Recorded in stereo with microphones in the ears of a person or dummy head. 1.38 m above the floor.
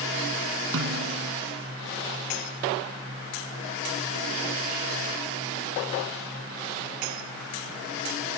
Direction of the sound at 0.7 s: 75° right (ahead or behind).